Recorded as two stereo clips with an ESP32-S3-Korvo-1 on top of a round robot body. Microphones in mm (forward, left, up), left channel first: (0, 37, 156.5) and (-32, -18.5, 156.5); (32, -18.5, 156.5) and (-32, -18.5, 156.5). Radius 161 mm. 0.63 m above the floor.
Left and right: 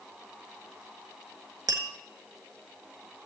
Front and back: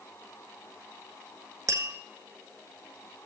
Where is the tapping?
140° right, 1.4 m.